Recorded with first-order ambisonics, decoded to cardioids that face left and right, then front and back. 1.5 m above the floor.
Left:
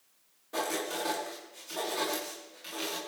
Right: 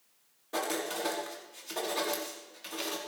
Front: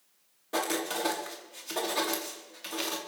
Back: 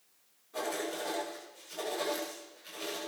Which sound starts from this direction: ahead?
Writing, at 0.5 s.